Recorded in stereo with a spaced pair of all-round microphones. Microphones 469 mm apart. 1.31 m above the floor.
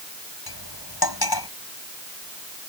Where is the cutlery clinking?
50° left (ahead or behind).